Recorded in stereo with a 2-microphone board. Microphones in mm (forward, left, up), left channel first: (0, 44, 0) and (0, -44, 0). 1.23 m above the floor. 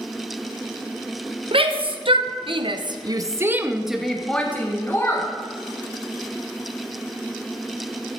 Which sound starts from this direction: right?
A shout, at 1.5 s.